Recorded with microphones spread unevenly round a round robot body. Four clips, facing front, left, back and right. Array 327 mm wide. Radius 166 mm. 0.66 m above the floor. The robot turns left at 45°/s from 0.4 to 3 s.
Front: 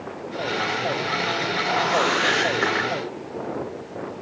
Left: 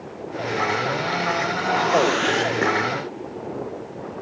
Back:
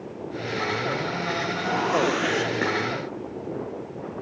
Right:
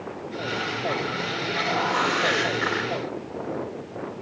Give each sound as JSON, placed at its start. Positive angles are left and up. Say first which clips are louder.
{"t": 1.6, "sound": "a whoosh", "louder": "left 5 dB, front 1 dB", "azimuth_deg": 150, "distance_m": 7.5}